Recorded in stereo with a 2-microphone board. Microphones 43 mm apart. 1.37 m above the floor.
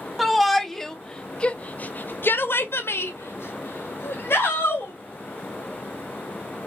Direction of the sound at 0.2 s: 5° right (ahead or behind).